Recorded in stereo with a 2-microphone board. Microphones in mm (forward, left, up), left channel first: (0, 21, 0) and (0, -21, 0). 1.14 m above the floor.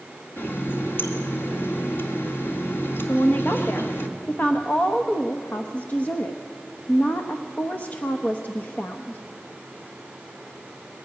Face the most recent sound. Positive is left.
turn(degrees=40)  # may be behind; listen again after turning